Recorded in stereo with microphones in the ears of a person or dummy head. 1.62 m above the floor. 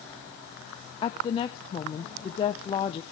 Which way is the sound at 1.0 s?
35° left (ahead or behind).